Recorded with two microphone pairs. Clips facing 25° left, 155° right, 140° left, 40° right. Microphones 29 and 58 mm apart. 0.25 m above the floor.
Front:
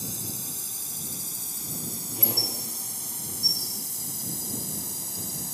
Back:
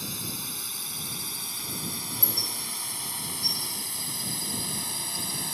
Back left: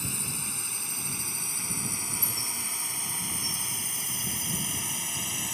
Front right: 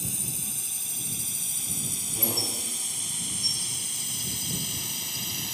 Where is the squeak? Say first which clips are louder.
Front 4 dB, front right 4 dB; 20° right.